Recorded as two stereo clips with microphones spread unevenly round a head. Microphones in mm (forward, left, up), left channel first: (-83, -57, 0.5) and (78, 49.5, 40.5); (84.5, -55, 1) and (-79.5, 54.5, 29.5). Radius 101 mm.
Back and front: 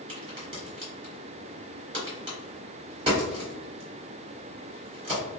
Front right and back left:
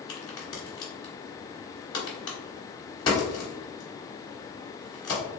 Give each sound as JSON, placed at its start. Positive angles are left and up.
{"t": 0.1, "sound": "a crack", "azimuth_deg": 35, "distance_m": 1.5}